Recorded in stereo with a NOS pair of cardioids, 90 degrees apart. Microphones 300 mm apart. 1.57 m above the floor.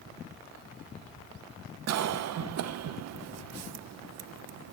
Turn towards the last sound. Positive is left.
turn(degrees=-60)